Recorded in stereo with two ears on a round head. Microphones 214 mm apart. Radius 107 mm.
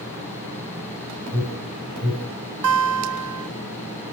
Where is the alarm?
75° right (ahead or behind), 4 m.